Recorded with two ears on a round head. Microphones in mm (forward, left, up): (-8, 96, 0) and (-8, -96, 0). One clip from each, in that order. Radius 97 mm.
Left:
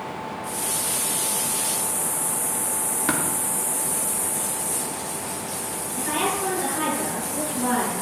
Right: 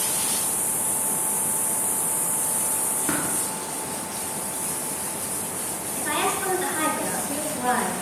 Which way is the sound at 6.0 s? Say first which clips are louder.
Even; 40° right (ahead or behind).